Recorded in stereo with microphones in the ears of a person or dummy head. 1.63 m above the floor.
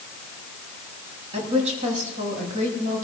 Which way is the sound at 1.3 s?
40° right (ahead or behind).